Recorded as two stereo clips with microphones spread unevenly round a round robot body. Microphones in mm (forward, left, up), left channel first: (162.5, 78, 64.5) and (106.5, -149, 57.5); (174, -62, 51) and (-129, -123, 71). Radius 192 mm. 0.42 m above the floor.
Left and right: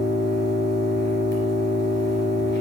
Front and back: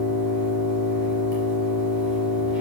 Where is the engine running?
30° left, 3 m.